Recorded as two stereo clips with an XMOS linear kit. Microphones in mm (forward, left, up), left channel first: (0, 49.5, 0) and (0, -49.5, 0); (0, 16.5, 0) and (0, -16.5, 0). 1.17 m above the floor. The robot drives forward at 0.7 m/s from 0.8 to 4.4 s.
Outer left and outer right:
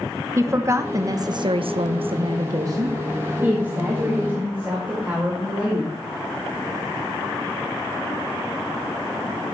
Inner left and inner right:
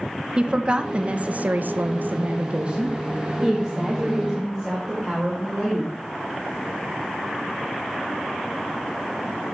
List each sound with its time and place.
0.4 s a woman speaking: 30° right (ahead or behind), 0.9 m; by 6.0 s 15° right (ahead or behind), 1.8 m